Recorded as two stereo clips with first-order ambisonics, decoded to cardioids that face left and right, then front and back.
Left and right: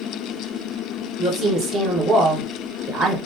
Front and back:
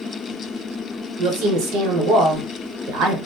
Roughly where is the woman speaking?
Behind.